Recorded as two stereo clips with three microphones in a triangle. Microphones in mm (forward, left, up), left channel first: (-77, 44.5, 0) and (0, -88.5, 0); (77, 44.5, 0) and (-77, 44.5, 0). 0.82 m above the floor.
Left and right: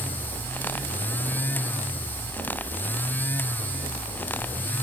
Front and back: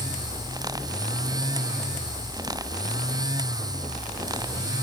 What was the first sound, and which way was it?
Only background noise.